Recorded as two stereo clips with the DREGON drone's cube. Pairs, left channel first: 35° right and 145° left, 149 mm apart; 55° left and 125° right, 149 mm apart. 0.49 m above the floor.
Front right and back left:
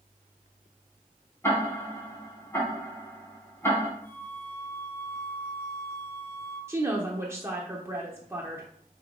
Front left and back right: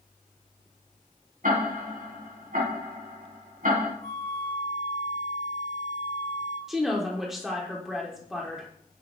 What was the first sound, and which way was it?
Ticking, 110° right.